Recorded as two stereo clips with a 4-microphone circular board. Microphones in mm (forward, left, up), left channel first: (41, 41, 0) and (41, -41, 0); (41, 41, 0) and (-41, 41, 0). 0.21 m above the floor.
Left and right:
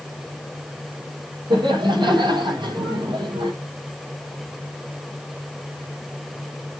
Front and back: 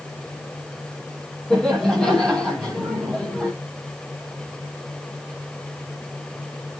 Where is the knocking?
No knocking in this recording.